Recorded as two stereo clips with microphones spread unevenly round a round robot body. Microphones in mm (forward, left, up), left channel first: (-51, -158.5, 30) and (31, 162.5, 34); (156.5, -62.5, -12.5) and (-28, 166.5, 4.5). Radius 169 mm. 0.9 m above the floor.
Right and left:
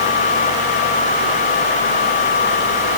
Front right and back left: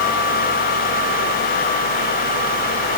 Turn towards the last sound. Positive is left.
No sound to turn to.